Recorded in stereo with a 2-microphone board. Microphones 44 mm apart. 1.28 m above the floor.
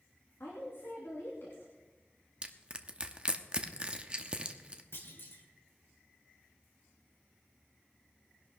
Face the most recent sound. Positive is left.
turn(degrees=65)  # may be behind; listen again after turning